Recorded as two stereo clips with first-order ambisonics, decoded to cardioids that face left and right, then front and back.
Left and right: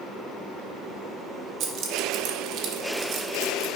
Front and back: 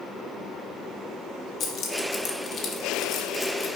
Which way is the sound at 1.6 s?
50° right.